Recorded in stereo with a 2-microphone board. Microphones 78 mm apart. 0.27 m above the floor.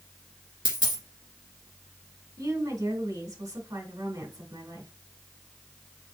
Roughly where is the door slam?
No door slam in this recording.